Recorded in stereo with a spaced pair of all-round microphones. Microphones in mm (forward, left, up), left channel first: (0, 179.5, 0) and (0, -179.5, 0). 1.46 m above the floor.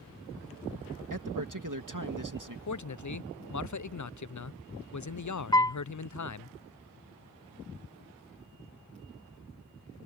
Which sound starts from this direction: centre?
A piano, at 5.5 s.